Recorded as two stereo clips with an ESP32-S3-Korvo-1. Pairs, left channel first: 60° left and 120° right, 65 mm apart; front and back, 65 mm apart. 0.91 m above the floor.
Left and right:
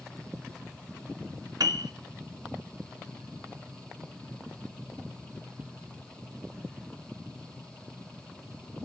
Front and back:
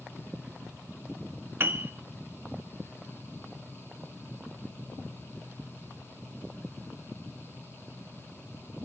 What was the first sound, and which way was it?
A piano, 130° right.